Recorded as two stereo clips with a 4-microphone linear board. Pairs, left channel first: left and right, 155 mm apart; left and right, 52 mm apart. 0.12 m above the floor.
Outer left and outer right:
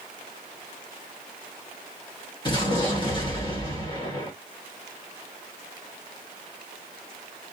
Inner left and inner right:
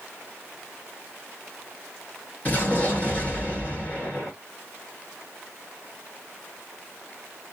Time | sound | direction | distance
2.5 | an explosion | 30° left (ahead or behind) | 1.9 m